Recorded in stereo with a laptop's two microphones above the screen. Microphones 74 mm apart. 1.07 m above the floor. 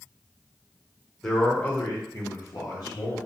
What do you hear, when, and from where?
1.2 s a man speaking: centre (ahead or behind), 0.7 m; by 3.2 s 60° left (ahead or behind), 1.4 m